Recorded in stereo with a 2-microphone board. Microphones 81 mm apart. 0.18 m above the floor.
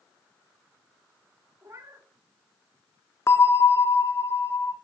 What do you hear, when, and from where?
1.6 s a cat meowing: 35° right (ahead or behind), 0.9 m
3.3 s a bell: 35° left (ahead or behind), 0.6 m